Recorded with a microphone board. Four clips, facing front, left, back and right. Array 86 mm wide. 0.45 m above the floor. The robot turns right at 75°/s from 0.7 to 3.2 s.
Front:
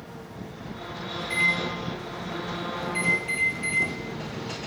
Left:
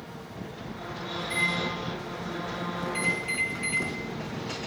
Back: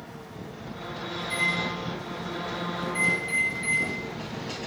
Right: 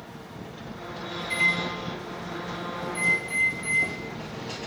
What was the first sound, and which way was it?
A microwave, 80° right.